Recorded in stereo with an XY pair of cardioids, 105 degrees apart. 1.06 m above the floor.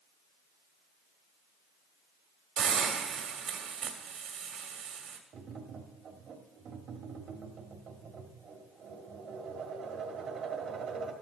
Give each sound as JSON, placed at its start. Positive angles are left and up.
{"t": 2.6, "sound": "a hiss", "azimuth_deg": -65, "distance_m": 2.0}
{"t": 5.3, "sound": "tapping", "azimuth_deg": -65, "distance_m": 1.9}